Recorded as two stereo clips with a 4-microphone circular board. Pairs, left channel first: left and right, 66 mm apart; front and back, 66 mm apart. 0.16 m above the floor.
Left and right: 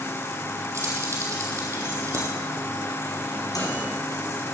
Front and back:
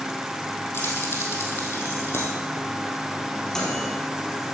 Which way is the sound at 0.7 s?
50° right.